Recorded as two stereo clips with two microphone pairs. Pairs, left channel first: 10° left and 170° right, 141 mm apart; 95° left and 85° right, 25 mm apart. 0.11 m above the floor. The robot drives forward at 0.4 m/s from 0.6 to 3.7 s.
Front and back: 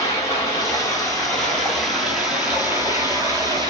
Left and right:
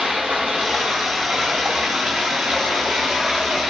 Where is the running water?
55° right, 1.4 m; by 3.7 s 115° right, 1.3 m.